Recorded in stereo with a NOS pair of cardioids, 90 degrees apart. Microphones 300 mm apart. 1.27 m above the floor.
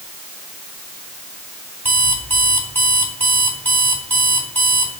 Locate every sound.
1.9 s an alarm clock: 5° left, 3.5 m